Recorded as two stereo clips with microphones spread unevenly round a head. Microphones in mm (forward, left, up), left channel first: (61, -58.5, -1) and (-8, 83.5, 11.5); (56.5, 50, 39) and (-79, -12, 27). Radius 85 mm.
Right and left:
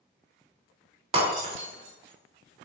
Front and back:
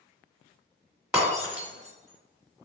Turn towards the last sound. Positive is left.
turn(degrees=120)